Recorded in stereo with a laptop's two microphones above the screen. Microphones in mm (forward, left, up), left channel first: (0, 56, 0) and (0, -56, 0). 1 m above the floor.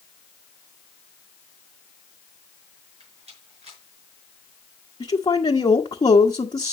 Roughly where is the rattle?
Right.